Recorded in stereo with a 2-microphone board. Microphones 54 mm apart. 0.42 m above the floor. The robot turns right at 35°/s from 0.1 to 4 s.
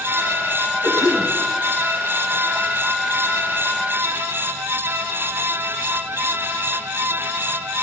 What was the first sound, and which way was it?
A cough, 70° left (ahead or behind).